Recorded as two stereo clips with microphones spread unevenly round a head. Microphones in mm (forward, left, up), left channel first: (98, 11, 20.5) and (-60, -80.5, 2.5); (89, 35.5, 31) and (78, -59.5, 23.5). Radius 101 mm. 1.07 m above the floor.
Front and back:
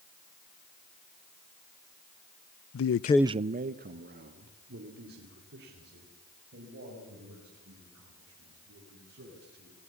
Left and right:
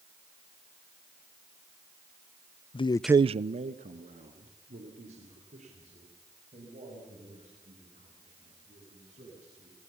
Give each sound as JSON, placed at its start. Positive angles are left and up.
{"t": 2.7, "sound": "a man speaking", "azimuth_deg": 45, "distance_m": 0.6}